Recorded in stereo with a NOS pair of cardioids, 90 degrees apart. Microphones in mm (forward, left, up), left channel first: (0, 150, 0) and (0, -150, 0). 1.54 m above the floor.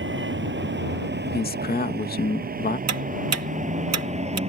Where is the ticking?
55° right.